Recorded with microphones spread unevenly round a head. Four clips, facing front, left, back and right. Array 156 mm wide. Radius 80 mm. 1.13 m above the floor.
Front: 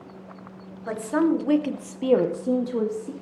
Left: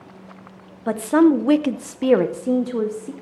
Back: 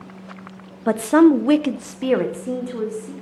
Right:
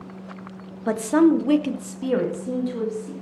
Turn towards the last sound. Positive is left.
turn(degrees=65)